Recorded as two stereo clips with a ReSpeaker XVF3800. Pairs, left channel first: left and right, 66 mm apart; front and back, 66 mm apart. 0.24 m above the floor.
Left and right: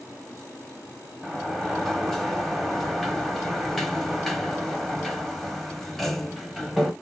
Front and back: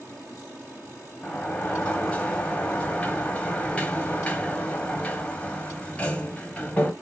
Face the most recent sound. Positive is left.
turn(degrees=10)